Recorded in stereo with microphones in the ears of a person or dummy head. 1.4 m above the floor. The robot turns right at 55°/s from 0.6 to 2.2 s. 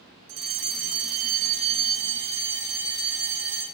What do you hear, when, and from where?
0.3 s a fire alarm: 110° right, 9 m; by 3.6 s 20° right, 9 m